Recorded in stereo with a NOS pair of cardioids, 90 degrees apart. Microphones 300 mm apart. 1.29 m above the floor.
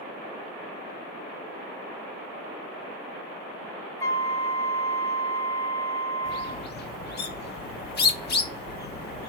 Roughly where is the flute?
Ahead.